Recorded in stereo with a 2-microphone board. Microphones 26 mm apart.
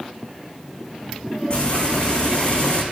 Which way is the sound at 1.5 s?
40° left (ahead or behind).